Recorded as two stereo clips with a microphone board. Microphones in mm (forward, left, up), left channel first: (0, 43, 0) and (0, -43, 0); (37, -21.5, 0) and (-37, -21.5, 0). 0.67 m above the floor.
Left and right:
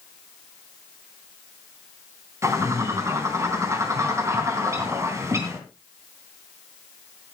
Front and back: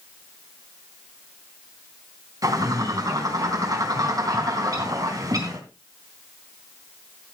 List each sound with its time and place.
2.4 s a bird: 145° right, 3.5 m